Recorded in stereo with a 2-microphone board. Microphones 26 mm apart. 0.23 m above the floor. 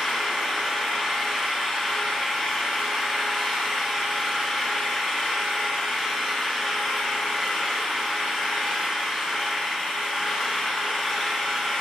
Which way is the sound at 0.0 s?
10° left (ahead or behind).